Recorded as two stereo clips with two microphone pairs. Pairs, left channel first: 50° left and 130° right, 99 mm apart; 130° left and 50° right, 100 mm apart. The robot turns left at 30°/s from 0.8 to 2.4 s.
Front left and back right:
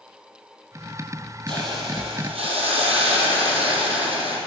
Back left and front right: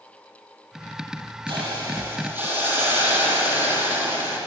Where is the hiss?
90° right, 2.5 m; by 4.4 s 120° right, 2.5 m.